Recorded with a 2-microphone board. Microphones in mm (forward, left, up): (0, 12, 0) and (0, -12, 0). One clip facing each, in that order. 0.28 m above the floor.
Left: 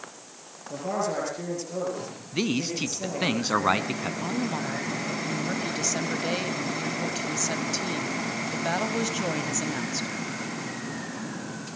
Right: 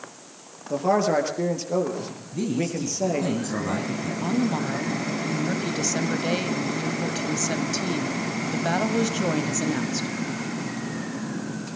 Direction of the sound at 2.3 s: 60° left (ahead or behind).